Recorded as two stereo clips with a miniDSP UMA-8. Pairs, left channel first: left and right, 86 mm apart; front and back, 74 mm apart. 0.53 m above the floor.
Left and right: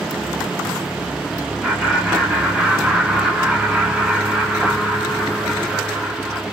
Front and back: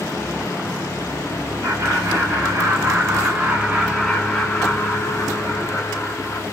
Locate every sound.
1.6 s laughter: 170° right, 1.6 m; by 6.4 s straight ahead, 1.4 m